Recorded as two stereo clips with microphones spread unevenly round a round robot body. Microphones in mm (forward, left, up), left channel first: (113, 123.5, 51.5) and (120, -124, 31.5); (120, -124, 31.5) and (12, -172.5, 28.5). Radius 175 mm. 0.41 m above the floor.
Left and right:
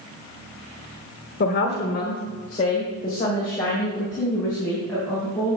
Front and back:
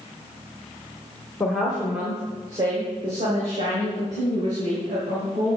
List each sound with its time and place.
1.4 s a woman speaking: 105° left, 1.1 m; by 5.6 s straight behind, 3.5 m